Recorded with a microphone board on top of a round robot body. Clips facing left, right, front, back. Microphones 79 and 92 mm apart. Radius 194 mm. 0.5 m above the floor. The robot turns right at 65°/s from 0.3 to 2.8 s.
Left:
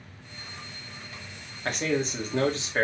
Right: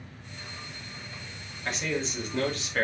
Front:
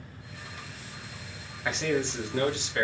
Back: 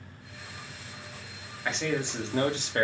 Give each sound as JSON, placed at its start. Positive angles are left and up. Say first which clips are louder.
{"t": 1.6, "sound": "a man speaking", "louder": "left 4 dB, front 2 dB", "azimuth_deg": 80, "distance_m": 1.6}